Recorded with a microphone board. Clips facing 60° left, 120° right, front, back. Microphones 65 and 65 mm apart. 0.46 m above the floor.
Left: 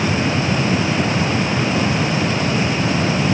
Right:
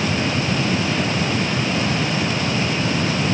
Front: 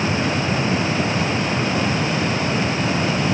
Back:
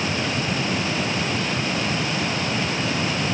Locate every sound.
Only background noise.